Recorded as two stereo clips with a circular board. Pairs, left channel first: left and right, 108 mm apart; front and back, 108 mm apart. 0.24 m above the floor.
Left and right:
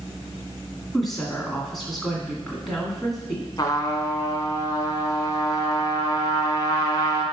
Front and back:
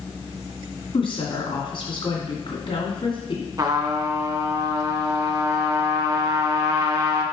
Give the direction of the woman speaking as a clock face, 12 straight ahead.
12 o'clock.